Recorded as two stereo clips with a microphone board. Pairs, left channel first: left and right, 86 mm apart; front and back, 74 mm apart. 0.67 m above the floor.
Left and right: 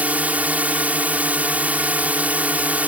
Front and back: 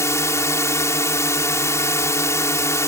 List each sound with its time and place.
0.0 s a drone: 25° right